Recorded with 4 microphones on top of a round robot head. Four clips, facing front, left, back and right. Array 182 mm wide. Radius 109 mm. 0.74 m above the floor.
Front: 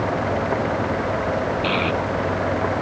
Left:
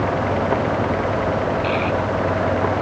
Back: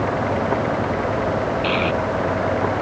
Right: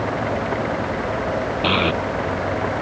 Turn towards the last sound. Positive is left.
turn(degrees=-95)